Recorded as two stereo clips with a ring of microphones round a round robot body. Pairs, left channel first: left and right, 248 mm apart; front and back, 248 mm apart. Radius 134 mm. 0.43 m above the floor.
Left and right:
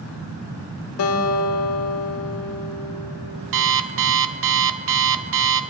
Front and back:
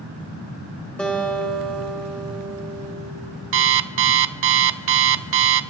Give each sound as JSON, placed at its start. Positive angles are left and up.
{"t": 1.0, "sound": "a guitar", "azimuth_deg": 85, "distance_m": 1.2}
{"t": 3.5, "sound": "an alarm clock", "azimuth_deg": -140, "distance_m": 0.5}